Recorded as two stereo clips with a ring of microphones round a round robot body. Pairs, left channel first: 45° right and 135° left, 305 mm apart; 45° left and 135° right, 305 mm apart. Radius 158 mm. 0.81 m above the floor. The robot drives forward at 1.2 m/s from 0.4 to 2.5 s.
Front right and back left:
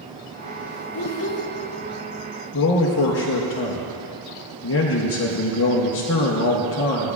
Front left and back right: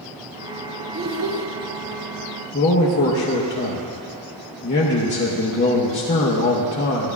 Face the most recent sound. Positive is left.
turn(degrees=-5)